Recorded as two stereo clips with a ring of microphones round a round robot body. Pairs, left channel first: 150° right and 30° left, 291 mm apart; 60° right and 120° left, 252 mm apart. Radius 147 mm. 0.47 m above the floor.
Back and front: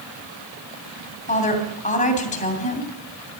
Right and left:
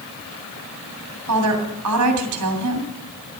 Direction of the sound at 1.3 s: 145° left.